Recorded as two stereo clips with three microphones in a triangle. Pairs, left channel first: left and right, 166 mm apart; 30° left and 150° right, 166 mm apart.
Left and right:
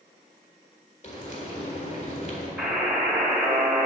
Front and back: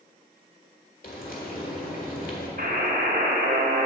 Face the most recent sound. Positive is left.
turn(degrees=-175)